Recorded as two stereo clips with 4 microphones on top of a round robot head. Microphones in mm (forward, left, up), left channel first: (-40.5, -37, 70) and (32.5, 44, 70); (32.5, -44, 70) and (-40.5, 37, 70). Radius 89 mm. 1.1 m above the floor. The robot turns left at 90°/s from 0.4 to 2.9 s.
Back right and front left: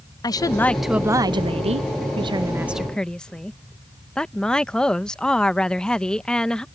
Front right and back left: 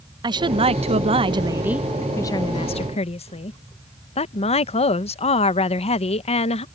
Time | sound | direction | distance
0.2 | a woman speaking | 175° left | ?